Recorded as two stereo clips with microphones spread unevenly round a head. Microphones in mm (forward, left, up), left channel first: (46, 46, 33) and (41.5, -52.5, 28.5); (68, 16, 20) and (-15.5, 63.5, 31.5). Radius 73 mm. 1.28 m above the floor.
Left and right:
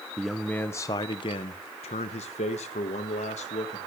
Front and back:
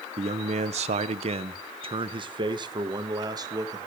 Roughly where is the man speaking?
Behind.